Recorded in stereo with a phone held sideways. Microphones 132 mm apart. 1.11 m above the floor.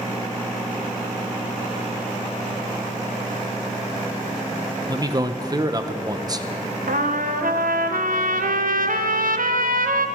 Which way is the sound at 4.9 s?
25° right (ahead or behind).